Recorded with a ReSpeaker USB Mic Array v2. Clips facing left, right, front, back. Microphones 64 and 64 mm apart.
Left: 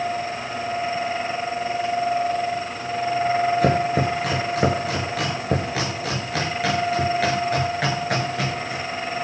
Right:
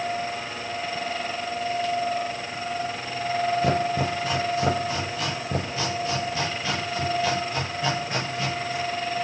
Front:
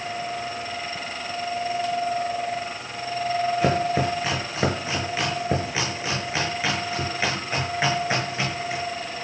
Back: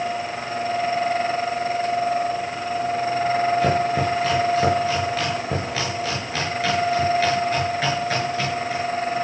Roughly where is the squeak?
I don't hear a squeak.